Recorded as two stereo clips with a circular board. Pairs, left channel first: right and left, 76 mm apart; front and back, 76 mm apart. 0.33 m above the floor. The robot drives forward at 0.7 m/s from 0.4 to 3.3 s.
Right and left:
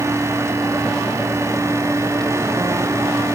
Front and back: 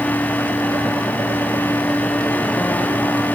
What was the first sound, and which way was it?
Only background noise.